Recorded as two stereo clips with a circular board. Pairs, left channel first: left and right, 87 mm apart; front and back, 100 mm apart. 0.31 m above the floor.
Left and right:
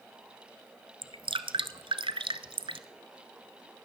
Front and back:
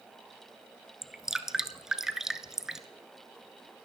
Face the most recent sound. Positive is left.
turn(degrees=-95)